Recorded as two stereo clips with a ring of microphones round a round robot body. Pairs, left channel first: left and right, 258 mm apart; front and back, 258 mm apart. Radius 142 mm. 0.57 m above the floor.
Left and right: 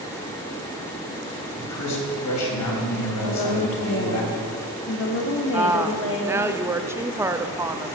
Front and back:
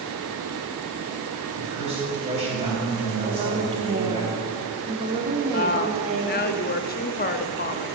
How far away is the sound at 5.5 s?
About 0.7 m.